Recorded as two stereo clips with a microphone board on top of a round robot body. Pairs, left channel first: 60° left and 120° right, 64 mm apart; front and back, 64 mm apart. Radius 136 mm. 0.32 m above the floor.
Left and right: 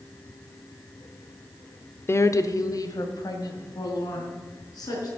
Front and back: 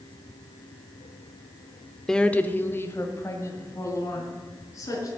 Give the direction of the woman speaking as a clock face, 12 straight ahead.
9 o'clock.